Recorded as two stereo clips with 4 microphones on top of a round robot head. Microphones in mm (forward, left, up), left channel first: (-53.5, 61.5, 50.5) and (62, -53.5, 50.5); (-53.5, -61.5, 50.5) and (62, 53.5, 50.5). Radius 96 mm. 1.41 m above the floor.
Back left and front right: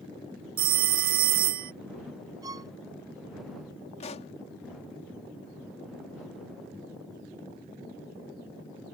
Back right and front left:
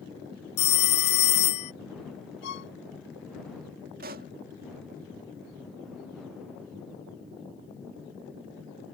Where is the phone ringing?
85° right.